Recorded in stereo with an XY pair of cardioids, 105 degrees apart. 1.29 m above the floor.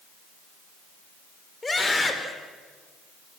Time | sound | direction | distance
1.6 | a scream | 20° left | 4.5 m